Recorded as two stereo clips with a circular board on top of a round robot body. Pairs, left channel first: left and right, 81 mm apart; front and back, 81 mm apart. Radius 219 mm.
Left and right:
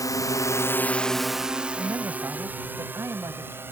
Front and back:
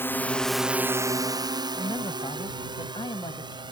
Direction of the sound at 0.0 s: 55° left.